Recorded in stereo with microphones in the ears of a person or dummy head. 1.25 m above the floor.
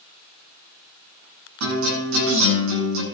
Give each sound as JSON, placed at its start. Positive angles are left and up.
{"t": 1.6, "sound": "a guitar", "side_deg": -85, "distance_m": 9.5}